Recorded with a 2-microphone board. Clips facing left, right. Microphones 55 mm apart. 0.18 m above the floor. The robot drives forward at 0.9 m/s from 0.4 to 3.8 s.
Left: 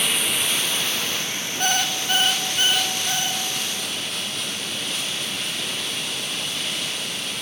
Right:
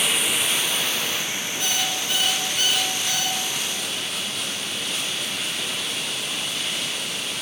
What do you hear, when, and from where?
0.0 s running water: 5° right (ahead or behind), 1.2 m; by 7.4 s centre (ahead or behind), 4.5 m
1.6 s an alarm clock: 45° left (ahead or behind), 0.9 m; by 3.4 s 20° left (ahead or behind), 1.7 m